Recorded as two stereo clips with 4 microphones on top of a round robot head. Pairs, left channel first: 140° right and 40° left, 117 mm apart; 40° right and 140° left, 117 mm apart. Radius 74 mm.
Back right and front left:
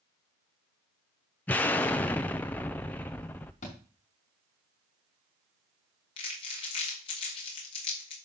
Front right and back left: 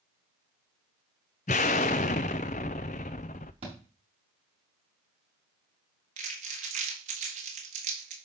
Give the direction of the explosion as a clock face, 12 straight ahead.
2 o'clock.